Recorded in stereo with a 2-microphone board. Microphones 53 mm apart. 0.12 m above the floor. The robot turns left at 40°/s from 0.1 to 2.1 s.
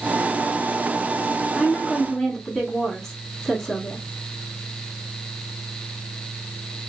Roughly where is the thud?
I don't hear a thud.